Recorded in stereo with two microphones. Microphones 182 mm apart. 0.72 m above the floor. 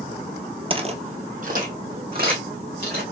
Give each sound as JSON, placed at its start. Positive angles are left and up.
{"t": 0.7, "sound": "footsteps", "side_deg": -30, "distance_m": 0.8}